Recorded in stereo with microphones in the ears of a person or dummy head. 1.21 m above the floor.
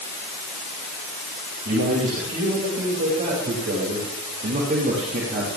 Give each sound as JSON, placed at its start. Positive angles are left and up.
{"t": 1.6, "sound": "a man speaking", "side_deg": -45, "distance_m": 5.0}